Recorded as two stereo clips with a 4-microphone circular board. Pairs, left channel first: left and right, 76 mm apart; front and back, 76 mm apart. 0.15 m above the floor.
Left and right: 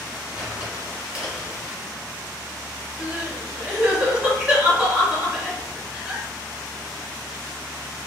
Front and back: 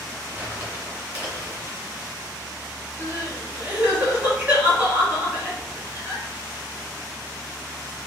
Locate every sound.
0.3 s crumpling: 140° right, 1.8 m
3.0 s crying: 135° right, 1.8 m